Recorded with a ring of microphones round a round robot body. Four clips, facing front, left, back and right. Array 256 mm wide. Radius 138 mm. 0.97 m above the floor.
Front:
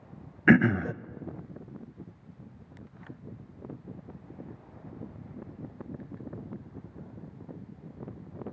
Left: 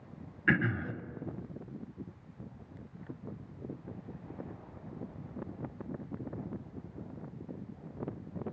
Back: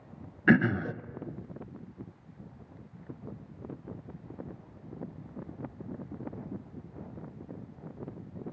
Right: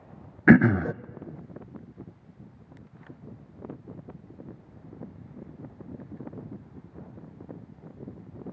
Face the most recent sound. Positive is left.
turn(degrees=-80)